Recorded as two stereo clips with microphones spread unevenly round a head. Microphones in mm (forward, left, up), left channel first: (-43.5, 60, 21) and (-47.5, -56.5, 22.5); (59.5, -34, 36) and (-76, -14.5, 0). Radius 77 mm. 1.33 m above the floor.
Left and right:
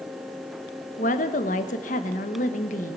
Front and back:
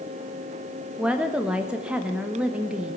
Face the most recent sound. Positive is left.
turn(degrees=85)